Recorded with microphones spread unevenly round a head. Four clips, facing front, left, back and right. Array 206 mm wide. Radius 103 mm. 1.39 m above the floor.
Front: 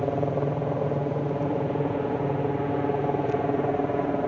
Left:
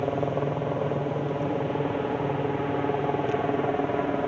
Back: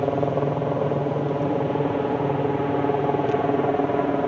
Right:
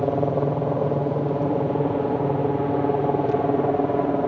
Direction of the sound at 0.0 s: 130° right.